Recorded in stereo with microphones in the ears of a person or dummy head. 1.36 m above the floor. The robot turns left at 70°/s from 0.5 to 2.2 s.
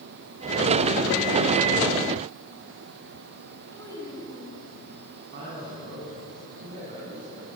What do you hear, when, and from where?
3.7 s a child speaking: 15° left (ahead or behind), 8 m
5.3 s a man speaking: 50° right (ahead or behind), 9.5 m